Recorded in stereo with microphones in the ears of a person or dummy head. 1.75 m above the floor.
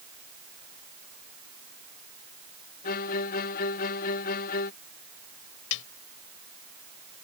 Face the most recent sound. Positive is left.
turn(degrees=75)  # may be behind; listen again after turning